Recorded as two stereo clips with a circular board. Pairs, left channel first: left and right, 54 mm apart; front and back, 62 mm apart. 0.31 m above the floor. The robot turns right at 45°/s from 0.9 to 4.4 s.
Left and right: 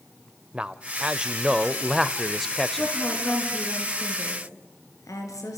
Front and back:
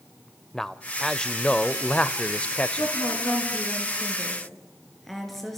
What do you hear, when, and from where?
0.5 s a man speaking: 65° right, 0.8 m; by 2.9 s 25° left, 0.8 m
2.8 s a woman speaking: 15° left, 5 m; by 5.6 s 85° left, 5 m